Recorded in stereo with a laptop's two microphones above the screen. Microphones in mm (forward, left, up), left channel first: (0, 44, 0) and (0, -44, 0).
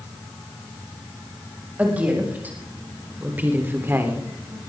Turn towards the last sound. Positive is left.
turn(degrees=-25)  # may be behind; listen again after turning